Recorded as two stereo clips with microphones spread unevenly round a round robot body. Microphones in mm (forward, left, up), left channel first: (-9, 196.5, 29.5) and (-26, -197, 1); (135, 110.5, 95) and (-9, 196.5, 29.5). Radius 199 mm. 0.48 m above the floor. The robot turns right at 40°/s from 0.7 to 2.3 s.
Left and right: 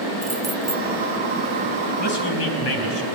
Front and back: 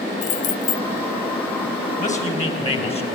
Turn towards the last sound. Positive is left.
turn(degrees=30)